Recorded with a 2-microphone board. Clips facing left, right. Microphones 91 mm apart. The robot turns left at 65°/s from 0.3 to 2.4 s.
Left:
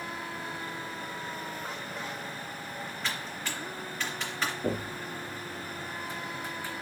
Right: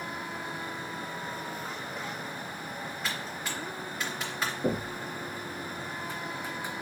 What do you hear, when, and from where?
3.0 s typing on a keyboard: 5° right (ahead or behind), 2.5 m
4.6 s knocking: 15° right (ahead or behind), 1.2 m